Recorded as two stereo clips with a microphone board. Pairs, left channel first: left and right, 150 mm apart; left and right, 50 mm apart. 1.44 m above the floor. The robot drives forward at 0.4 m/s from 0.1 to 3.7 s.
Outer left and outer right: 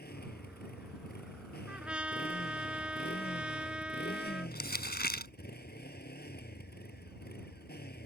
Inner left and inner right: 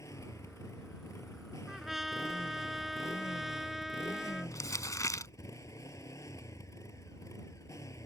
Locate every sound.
0.0 s a motorcycle: 80° left; by 8.1 s 85° left
1.7 s a trumpet: 5° right (ahead or behind)
4.5 s crumpling: 80° left